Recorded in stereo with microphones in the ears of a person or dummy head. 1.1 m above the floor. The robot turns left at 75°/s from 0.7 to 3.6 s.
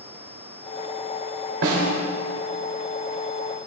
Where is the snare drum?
65° right (ahead or behind), 2 m; by 1.9 s 75° right (ahead or behind), 2 m.